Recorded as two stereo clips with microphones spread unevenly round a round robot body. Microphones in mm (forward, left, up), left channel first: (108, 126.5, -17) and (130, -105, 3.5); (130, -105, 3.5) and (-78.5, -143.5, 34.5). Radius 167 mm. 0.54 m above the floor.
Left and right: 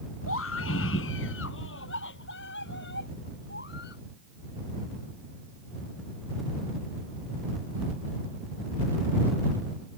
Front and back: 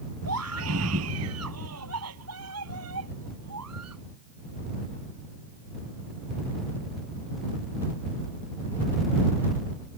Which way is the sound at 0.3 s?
150° left.